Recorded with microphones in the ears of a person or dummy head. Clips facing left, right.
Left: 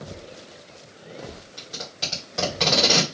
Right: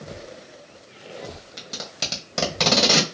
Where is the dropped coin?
No dropped coin in this recording.